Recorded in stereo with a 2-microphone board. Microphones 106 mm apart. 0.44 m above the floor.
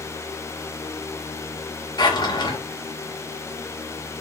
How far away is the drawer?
About 0.8 m.